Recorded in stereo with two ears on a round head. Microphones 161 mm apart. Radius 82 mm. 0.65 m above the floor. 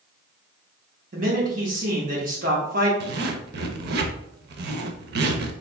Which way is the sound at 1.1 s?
45° right (ahead or behind).